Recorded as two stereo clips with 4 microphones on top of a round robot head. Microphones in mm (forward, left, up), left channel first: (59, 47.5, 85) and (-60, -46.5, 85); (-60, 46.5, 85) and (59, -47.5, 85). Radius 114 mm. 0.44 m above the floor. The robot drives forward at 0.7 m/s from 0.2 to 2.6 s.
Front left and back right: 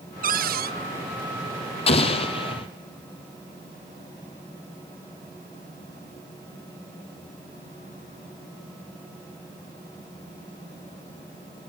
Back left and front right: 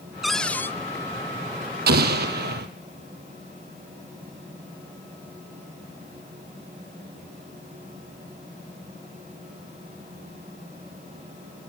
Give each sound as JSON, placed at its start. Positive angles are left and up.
{"t": 0.2, "sound": "a cupboard door", "azimuth_deg": -125, "distance_m": 0.8}
{"t": 1.9, "sound": "an explosion", "azimuth_deg": -15, "distance_m": 3.0}